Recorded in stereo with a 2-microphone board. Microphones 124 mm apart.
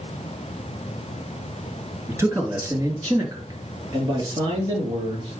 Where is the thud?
No thud in this recording.